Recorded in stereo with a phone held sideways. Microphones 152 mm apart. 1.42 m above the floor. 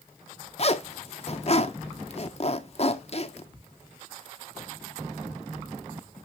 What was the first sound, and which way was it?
A zipper, 45° left (ahead or behind).